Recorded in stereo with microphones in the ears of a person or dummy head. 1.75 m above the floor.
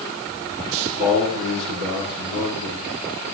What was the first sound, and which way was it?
A man speaking, 65° right (ahead or behind).